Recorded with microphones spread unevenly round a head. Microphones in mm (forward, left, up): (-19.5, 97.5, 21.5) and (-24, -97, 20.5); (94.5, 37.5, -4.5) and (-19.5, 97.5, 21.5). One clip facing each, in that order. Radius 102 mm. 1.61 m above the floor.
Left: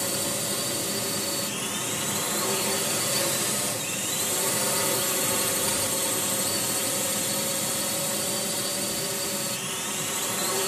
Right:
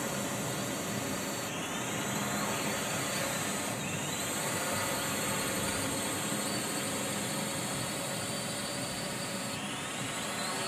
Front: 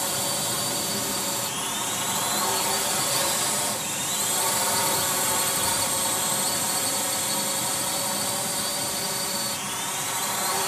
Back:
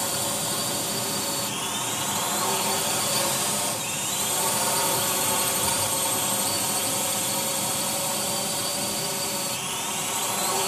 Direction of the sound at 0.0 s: 65° left.